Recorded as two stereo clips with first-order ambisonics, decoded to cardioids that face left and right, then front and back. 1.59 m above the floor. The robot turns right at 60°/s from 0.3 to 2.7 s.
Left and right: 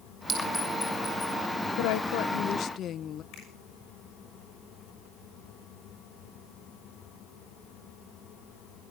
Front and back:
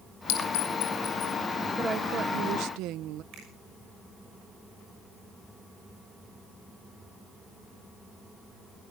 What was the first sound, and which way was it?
A clink, 15° right.